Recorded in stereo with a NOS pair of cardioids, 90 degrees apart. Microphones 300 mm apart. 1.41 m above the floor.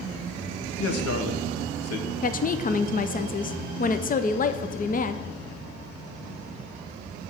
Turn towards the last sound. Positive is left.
turn(degrees=30)